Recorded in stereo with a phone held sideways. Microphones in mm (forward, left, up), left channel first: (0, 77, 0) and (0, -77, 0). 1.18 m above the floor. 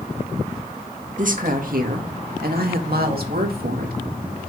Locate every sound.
1.2 s a woman speaking: 60° right (ahead or behind), 1.9 m; by 4.0 s 80° right, 2.5 m